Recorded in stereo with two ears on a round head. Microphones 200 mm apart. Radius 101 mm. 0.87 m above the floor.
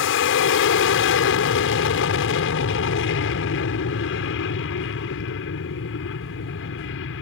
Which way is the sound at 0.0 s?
60° left (ahead or behind).